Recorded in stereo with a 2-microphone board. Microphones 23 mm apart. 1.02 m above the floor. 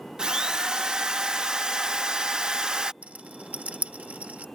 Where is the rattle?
75° right (ahead or behind).